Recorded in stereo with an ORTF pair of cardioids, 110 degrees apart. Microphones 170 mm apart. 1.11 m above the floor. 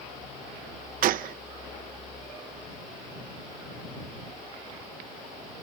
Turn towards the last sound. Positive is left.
turn(degrees=-55)